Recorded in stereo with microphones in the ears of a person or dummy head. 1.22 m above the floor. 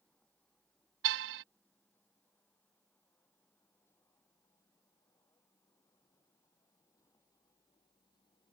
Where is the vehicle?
5° left (ahead or behind); by 8.5 s 20° left (ahead or behind).